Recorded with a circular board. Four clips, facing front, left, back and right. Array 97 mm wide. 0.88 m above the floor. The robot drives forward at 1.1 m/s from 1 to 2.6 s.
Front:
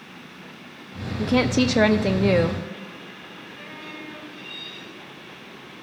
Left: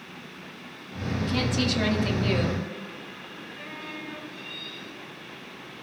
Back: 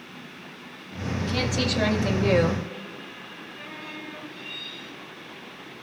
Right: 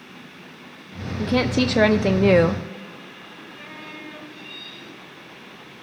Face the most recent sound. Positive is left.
turn(degrees=-105)